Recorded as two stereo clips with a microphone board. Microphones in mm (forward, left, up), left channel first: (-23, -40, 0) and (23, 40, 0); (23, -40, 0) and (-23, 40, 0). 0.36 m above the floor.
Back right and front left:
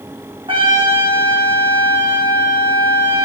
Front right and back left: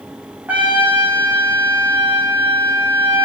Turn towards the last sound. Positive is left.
turn(degrees=45)